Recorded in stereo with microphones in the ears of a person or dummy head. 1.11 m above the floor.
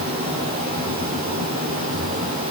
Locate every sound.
Only background noise.